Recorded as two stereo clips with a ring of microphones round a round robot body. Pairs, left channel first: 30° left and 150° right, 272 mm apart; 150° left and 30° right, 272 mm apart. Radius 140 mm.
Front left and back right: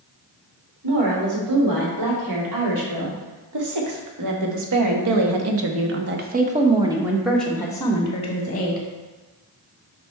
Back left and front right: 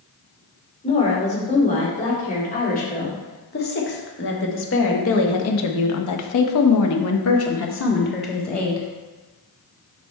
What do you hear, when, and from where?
0.8 s a woman speaking: 145° right, 3 m; by 8.8 s 90° left, 1.4 m